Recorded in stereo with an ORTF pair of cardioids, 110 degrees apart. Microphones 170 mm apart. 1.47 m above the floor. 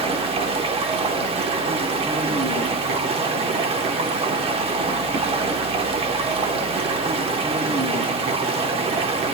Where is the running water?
35° right, 1.0 m.